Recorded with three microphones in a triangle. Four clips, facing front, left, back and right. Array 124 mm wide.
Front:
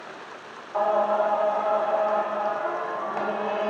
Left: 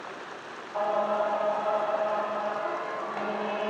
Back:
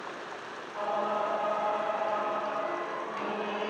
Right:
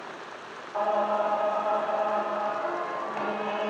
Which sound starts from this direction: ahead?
Singing, at 0.7 s.